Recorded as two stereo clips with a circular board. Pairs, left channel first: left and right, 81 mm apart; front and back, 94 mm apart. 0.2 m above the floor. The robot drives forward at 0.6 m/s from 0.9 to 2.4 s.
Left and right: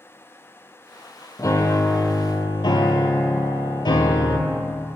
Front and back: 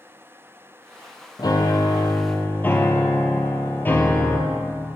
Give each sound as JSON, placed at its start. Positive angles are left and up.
{"t": 1.4, "sound": "a piano", "azimuth_deg": 45, "distance_m": 1.3}